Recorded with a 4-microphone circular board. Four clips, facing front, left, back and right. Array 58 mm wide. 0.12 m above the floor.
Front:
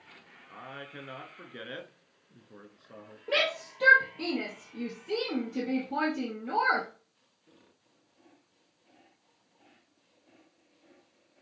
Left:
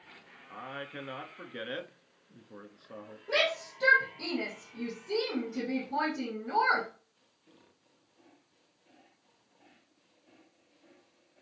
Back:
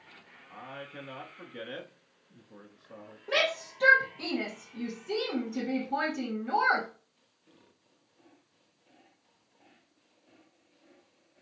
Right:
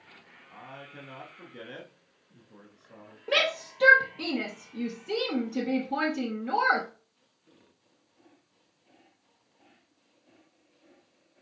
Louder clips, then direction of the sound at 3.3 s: Right 3 dB, even; 75° right.